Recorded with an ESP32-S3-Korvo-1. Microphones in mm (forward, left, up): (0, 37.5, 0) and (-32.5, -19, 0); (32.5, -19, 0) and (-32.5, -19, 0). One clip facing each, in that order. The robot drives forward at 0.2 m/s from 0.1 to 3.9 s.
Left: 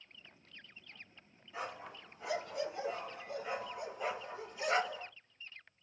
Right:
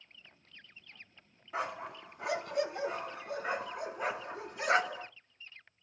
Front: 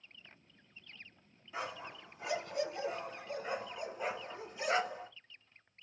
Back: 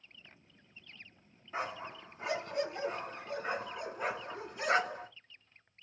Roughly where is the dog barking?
Behind right.